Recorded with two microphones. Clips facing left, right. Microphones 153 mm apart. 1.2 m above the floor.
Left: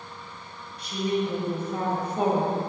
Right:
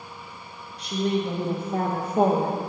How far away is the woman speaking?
About 1.2 m.